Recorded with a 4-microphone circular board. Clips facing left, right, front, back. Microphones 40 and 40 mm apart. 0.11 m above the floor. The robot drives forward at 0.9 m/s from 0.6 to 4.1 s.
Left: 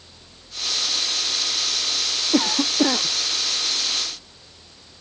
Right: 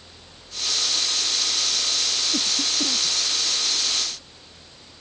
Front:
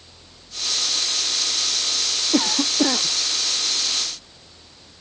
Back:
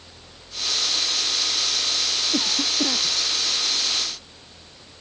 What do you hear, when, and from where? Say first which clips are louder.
2.3 s a cough: left 11 dB, front 6 dB; 60° left